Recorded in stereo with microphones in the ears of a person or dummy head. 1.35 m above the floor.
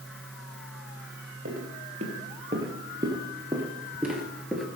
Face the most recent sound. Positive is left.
turn(degrees=5)  # may be behind; listen again after turning